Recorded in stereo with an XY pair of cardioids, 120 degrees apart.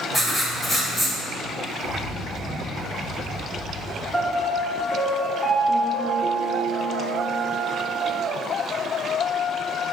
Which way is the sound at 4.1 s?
10° left.